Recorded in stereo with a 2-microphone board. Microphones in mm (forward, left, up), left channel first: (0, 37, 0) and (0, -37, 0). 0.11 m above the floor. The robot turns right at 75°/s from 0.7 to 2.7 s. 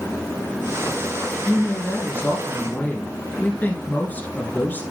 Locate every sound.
1.4 s a woman speaking: 5° left (ahead or behind), 1.7 m; by 4.8 s 25° left (ahead or behind), 1.7 m